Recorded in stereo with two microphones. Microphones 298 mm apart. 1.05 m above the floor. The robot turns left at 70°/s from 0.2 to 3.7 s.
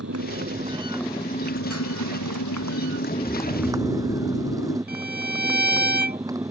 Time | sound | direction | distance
0.0 | a motorcycle | 125° right | ?
3.2 | snoring | 160° left | ?
4.9 | a violin | 35° right (ahead or behind) | ?